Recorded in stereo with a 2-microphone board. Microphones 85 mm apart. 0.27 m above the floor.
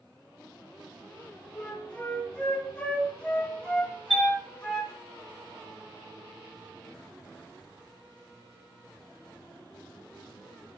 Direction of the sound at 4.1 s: 5° right (ahead or behind).